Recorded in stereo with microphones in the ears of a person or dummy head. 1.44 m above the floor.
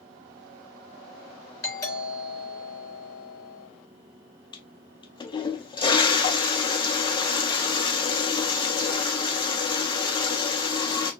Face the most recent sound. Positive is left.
turn(degrees=25)  # may be behind; listen again after turning